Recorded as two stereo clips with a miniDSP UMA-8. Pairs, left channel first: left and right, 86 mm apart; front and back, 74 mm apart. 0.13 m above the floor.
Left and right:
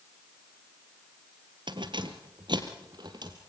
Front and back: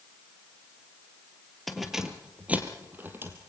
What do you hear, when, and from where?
1.7 s keys jangling: 85° right, 1.7 m; by 3.4 s 125° right, 3 m